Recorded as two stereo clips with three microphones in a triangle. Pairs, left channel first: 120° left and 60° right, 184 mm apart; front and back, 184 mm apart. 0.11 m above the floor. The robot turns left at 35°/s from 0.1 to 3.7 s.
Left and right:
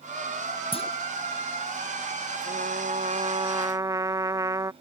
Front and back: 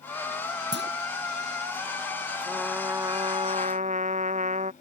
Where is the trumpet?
90° right; by 4.7 s 130° right.